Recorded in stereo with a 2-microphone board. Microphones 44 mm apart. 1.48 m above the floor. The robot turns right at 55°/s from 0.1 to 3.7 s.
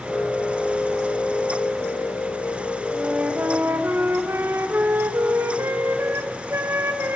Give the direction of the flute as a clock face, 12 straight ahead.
5 o'clock.